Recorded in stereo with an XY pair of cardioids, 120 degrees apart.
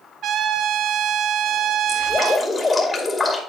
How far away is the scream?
No scream in this recording.